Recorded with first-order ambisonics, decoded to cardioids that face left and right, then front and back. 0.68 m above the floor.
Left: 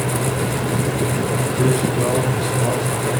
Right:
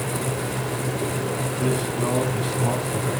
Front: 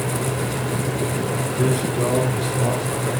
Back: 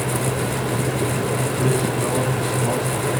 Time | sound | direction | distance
1.6 | a man speaking | 60° left | 10 m